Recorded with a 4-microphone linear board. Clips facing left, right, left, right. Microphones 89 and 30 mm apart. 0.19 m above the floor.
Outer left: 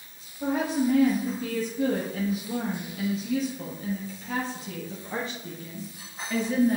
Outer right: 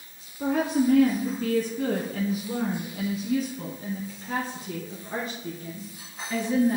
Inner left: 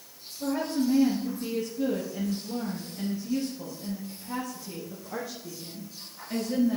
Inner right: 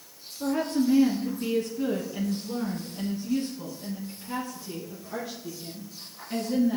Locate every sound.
0.4 s a woman speaking: 60° right (ahead or behind), 2 m; by 6.8 s 5° right (ahead or behind), 3 m